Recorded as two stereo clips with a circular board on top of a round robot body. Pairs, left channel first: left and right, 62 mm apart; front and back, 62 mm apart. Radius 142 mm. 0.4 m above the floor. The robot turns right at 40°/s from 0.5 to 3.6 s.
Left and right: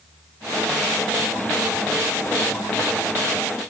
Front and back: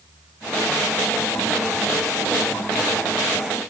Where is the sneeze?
I don't hear a sneeze.